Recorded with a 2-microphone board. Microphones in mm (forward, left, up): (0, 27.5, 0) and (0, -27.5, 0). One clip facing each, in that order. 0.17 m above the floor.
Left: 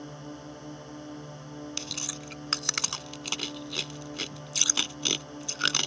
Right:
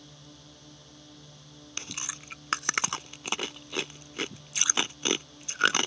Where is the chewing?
25° right (ahead or behind).